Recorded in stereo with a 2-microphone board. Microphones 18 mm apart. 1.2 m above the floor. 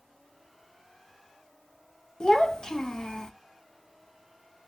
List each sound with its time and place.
2.2 s a child speaking: 50° left (ahead or behind), 0.7 m